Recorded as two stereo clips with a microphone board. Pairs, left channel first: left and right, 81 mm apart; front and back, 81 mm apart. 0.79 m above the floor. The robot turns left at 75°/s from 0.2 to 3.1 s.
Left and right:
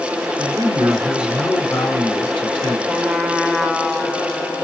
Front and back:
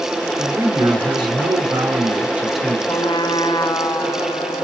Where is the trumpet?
20° left, 1.6 m; by 4.6 s 5° left, 1.6 m.